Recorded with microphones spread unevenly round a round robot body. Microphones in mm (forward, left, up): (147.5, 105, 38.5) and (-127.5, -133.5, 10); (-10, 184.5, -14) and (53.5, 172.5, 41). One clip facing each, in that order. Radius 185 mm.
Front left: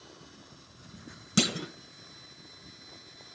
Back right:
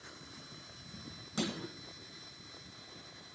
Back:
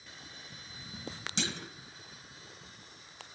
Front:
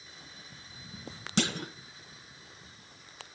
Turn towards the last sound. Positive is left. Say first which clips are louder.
# front left 8 dB, front 9 dB
turn(degrees=10)